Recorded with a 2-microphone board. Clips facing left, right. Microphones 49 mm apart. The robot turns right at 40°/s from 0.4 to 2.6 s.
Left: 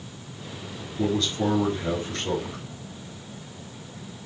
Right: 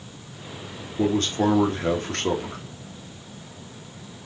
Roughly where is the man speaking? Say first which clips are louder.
Right 3 dB; behind right.